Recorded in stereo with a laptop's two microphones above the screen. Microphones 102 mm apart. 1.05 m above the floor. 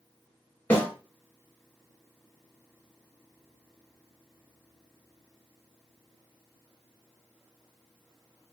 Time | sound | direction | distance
0.7 | a snare drum | 15° left (ahead or behind) | 1.9 m